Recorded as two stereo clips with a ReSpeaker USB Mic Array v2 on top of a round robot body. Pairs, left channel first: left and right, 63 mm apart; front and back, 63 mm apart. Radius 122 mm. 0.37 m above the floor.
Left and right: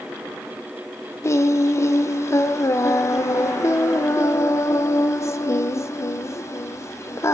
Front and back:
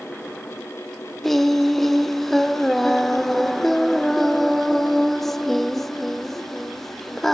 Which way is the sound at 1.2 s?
85° left.